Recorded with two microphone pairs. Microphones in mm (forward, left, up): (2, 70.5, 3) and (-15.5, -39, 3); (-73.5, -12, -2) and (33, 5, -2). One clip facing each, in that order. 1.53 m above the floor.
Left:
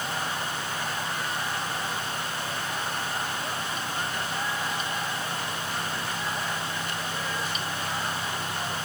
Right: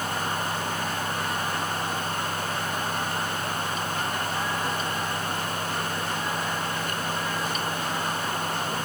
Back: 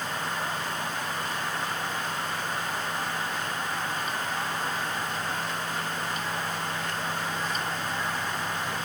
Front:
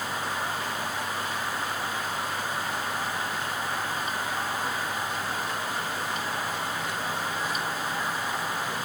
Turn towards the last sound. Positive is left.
No sound to turn to.